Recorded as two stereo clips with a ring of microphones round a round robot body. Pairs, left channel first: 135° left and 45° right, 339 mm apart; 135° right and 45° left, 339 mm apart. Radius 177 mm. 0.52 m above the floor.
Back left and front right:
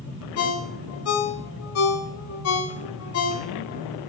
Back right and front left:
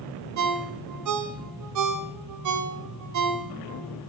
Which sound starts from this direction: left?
A ringtone, at 0.4 s.